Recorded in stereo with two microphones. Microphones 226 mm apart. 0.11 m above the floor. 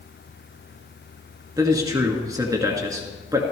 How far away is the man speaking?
About 1.6 m.